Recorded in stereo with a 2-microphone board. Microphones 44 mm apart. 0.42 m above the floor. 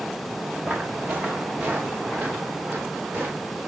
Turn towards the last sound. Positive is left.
turn(degrees=-30)  # may be behind; listen again after turning